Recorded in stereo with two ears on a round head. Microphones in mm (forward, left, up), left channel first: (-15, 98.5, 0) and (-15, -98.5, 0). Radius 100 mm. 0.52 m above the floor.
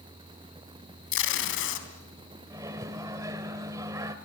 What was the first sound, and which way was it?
Tape being pulled, 60° left (ahead or behind).